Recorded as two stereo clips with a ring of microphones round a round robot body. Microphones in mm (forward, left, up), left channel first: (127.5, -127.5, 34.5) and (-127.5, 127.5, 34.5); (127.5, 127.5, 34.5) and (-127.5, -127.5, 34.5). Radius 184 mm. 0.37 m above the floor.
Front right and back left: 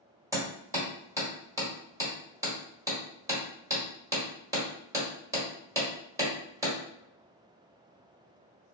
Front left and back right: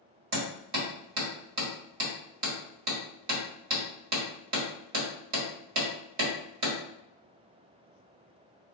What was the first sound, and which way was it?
Hammering, 145° right.